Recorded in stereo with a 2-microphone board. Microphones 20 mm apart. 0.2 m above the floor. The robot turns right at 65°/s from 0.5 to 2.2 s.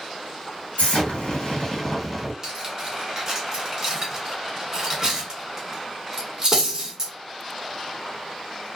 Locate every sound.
0.8 s an explosion: 85° left, 1.7 m; by 2.3 s 175° left, 1.7 m
2.4 s cutlery clinking: 20° right (ahead or behind), 1.1 m